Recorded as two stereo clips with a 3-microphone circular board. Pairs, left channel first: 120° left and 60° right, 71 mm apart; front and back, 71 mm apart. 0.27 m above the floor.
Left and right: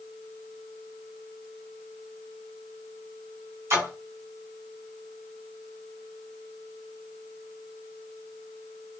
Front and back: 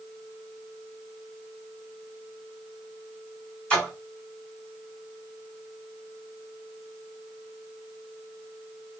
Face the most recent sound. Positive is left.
turn(degrees=-75)